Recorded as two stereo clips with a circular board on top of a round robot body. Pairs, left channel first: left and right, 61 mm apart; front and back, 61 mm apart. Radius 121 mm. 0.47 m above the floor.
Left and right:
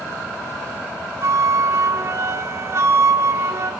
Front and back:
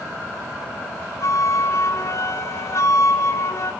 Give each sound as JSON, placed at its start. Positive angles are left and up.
{"t": 1.2, "sound": "a flute", "azimuth_deg": -45, "distance_m": 0.5}